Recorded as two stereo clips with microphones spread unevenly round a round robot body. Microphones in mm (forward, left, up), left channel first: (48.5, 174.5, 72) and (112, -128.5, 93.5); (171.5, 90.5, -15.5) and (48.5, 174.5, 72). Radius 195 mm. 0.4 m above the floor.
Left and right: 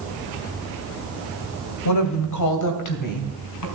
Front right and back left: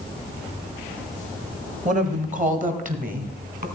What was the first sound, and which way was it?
A woman speaking, 95° left.